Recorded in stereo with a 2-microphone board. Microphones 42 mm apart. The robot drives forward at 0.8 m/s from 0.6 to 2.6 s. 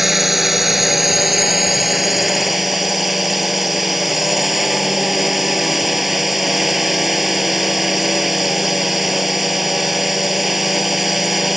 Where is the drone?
5° right (ahead or behind).